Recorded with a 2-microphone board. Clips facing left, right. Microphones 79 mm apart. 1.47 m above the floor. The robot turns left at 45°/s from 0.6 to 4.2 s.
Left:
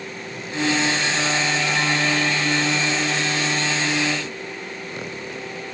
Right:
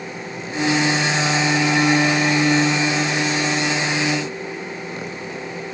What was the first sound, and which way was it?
Only background noise.